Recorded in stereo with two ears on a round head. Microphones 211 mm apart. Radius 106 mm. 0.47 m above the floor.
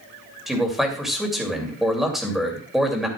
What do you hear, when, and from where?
0.5 s a man speaking: centre (ahead or behind), 2.5 m